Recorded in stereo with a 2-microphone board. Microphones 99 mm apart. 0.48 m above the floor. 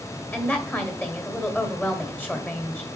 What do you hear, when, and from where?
0.3 s a woman speaking: 15° left (ahead or behind), 1.7 m